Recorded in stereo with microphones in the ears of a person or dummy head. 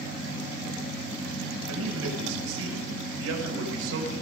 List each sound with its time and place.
1.7 s a man speaking: 80° right, 7.5 m